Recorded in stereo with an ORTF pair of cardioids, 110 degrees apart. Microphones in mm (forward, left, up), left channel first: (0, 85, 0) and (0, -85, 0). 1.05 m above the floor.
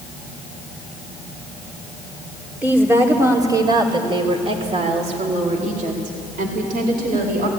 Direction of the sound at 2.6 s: 10° right.